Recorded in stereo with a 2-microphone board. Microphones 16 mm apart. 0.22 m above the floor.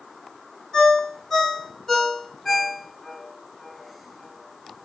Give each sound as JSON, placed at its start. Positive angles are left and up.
{"t": 0.7, "sound": "a ringtone", "side_deg": 25, "distance_m": 1.7}